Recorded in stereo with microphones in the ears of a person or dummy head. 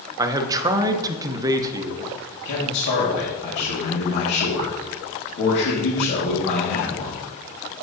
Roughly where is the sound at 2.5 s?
Left.